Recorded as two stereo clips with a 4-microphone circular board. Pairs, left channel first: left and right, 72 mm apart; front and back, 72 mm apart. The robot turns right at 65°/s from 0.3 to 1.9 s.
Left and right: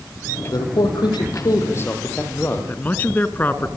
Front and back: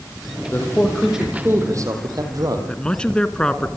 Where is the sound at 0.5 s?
60° left, 5.5 m; by 2.7 s 150° left, 5.5 m.